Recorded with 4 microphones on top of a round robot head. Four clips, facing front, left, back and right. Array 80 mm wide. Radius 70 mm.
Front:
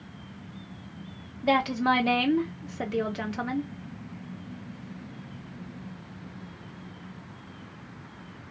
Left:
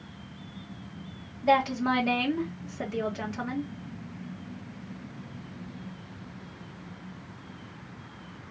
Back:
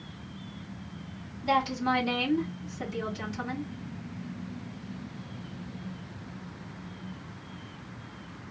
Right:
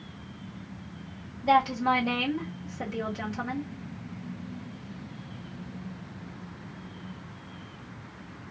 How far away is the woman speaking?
About 2 m.